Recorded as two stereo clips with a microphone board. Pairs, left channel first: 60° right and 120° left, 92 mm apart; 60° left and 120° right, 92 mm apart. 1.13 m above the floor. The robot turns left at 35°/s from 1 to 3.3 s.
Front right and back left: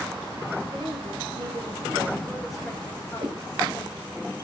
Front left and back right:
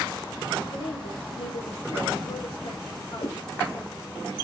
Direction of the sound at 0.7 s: 85° left.